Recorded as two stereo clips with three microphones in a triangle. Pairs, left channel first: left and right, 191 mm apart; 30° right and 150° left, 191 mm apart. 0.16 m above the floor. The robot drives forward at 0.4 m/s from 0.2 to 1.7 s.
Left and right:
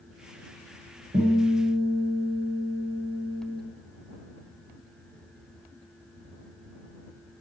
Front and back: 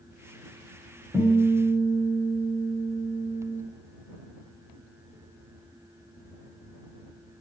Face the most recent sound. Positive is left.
turn(degrees=-120)